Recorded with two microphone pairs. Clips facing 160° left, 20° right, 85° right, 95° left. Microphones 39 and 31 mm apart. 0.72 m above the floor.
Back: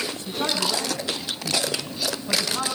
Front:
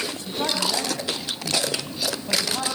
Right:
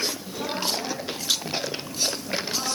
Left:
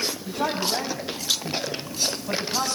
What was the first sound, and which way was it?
A man speaking, 55° left.